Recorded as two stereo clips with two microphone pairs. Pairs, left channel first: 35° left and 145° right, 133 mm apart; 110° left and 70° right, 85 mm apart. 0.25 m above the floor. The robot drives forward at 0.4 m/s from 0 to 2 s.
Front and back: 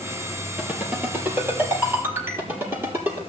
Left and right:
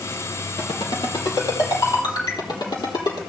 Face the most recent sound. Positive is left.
turn(degrees=140)